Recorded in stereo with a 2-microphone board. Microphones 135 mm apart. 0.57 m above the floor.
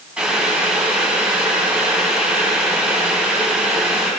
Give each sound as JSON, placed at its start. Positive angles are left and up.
{"t": 0.2, "sound": "boiling", "side_deg": -5, "distance_m": 3.0}